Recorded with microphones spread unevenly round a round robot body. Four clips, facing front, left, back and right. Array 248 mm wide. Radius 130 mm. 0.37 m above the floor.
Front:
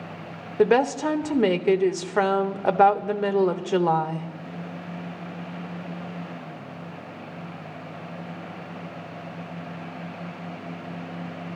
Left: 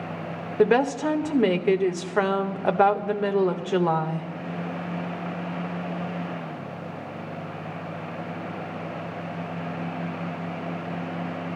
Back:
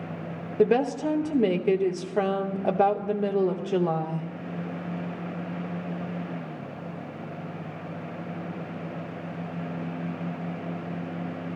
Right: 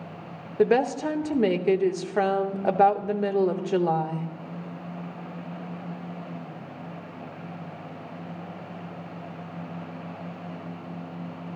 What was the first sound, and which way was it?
A woman speaking, straight ahead.